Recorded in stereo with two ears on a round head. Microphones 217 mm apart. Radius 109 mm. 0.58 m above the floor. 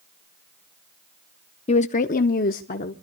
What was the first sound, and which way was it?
A woman speaking, 25° left (ahead or behind).